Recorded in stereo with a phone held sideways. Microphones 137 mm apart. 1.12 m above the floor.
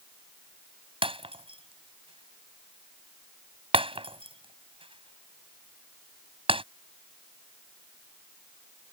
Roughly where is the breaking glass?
Right.